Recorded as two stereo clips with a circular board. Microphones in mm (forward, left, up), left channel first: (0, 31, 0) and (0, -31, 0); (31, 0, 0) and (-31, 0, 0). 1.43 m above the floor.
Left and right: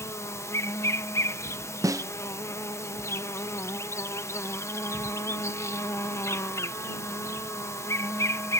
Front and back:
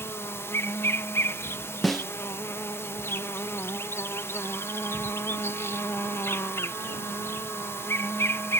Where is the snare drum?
90° right.